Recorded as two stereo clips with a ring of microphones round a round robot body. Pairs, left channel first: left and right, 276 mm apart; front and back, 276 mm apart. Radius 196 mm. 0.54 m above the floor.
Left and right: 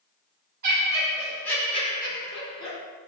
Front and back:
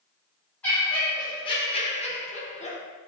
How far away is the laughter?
About 0.7 m.